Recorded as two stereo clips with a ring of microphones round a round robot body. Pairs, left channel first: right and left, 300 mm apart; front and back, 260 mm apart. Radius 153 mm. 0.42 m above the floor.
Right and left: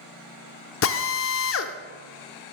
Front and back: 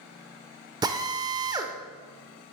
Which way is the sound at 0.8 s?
110° right.